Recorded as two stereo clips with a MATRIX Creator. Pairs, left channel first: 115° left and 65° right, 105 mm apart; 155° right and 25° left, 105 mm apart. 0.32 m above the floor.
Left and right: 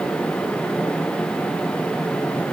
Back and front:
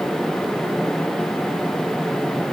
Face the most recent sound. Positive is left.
No sound to turn to.